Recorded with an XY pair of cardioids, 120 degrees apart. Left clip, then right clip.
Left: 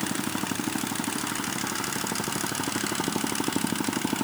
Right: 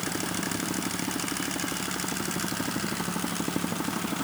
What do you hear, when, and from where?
Only background noise.